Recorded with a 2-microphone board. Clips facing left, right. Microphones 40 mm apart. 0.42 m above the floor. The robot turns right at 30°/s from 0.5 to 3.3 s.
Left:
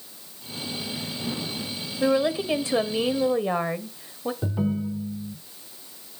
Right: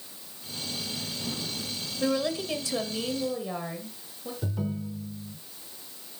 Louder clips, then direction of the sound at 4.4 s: Left 5 dB; 25° left (ahead or behind).